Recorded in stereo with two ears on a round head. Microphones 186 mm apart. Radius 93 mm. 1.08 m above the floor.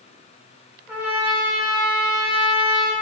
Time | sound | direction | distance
0.9 | a trumpet | 10° right (ahead or behind) | 0.6 m